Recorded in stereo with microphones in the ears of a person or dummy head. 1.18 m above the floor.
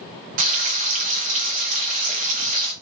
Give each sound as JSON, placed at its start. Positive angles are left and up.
{"t": 0.4, "sound": "frying", "side_deg": -45, "distance_m": 0.7}